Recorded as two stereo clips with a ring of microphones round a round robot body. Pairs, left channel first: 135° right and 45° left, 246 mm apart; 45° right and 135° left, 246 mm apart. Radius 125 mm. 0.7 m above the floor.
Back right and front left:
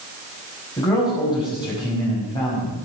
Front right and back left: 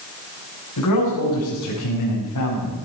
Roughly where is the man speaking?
Ahead right.